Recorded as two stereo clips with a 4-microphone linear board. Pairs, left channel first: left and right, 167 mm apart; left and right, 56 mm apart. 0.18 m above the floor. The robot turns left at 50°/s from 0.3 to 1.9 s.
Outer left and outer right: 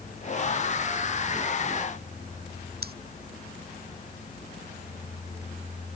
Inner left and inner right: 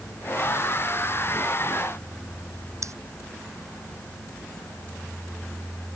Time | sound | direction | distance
2.8 | scissors | 65° right (ahead or behind) | ?